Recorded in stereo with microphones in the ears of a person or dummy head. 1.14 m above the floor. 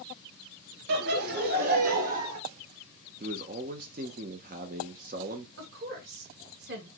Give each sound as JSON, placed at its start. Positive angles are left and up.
{"t": 0.9, "sound": "laughter", "side_deg": -55, "distance_m": 0.9}
{"t": 3.2, "sound": "a man speaking", "side_deg": -35, "distance_m": 0.5}
{"t": 5.6, "sound": "a woman speaking", "side_deg": -50, "distance_m": 1.2}